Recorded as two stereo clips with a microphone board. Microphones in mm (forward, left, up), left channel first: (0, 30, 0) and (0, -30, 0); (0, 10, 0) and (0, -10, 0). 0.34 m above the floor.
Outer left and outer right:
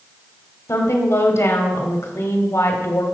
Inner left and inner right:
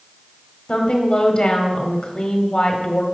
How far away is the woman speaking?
About 1.4 m.